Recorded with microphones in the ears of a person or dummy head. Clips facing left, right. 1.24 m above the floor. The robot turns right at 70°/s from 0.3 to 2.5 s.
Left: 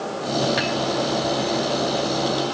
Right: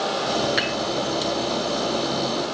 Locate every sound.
0.6 s dishes clattering: 20° right (ahead or behind), 7.5 m; by 0.8 s 5° right (ahead or behind), 7.5 m